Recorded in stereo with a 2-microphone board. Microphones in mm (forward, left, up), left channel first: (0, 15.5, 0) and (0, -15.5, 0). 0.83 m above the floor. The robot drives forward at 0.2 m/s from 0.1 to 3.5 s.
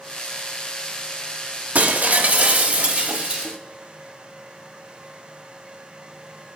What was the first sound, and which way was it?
Breaking glass, 55° right (ahead or behind).